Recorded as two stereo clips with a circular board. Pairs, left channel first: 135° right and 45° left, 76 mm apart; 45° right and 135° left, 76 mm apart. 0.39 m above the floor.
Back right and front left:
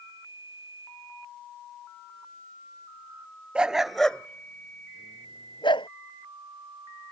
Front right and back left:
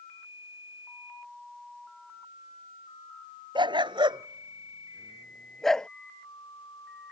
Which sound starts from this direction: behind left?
A dog barking, at 3.5 s.